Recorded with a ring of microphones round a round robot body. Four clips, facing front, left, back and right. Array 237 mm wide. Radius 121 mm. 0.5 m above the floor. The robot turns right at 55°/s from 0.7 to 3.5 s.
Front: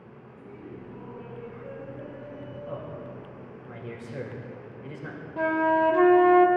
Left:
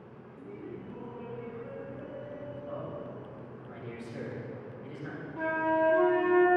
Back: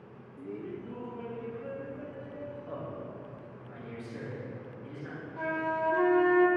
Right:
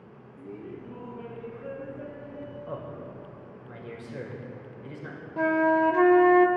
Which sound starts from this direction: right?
A man speaking, at 2.7 s.